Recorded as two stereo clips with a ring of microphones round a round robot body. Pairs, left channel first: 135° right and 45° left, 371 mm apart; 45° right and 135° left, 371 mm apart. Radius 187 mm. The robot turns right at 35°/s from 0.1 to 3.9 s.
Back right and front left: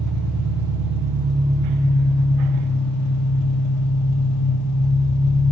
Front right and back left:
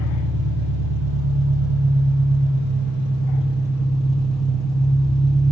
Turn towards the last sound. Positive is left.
turn(degrees=-135)